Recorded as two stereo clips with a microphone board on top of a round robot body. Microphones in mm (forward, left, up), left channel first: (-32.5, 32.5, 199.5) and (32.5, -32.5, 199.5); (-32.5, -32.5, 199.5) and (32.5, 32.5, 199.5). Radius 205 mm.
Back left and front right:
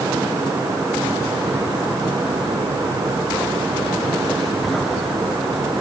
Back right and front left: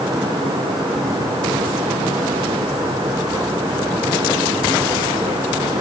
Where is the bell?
I don't hear a bell.